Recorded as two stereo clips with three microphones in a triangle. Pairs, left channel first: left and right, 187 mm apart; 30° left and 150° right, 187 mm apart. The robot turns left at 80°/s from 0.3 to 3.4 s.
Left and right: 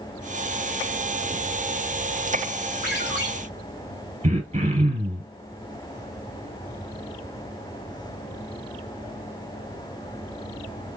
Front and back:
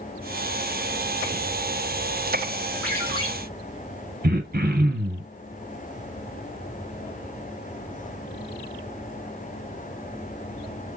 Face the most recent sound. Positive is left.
turn(degrees=-135)